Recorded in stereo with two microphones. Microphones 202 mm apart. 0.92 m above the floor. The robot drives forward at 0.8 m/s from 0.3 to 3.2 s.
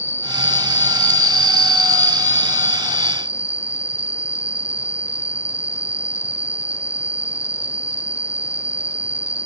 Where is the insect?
10° right (ahead or behind); by 9.4 s 5° right (ahead or behind).